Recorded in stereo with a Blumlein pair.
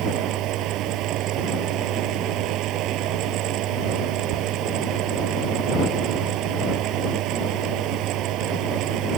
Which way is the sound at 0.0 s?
35° right.